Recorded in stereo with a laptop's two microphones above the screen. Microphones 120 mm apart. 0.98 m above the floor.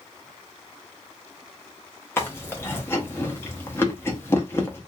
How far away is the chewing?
About 0.7 m.